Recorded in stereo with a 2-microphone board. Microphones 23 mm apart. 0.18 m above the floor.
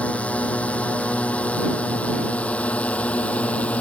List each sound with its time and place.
0.0 s a drone: 80° left; by 3.8 s 75° left (ahead or behind)